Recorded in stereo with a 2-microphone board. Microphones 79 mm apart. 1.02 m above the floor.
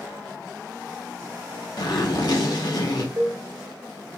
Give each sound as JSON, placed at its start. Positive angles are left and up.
{"t": 1.8, "sound": "a zipper", "side_deg": 60, "distance_m": 1.2}
{"t": 3.2, "sound": "a cowbell", "side_deg": -45, "distance_m": 1.0}